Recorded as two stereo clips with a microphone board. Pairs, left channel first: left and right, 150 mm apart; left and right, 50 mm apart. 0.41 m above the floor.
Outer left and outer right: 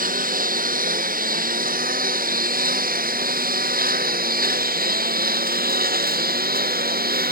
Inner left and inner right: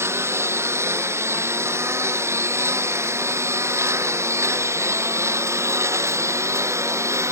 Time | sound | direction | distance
0.0 | a lawn mower | 65° right (ahead or behind) | ?